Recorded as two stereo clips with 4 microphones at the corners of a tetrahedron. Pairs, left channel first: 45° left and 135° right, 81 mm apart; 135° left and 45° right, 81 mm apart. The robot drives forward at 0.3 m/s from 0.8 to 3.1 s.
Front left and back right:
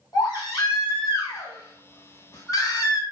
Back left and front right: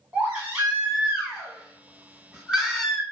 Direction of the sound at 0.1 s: 20° left.